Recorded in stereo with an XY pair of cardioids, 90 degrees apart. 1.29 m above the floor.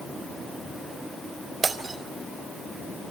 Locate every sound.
1.6 s breaking glass: 40° right, 3.5 m